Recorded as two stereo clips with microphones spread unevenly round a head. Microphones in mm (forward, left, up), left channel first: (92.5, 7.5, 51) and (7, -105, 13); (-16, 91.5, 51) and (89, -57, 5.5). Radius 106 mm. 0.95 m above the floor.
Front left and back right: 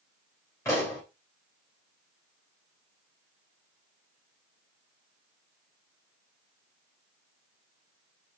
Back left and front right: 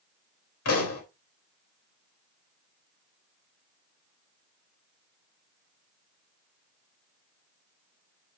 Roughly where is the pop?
Behind left.